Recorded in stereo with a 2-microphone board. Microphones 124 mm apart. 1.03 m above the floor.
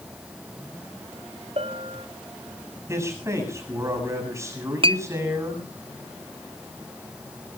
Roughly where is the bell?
Right.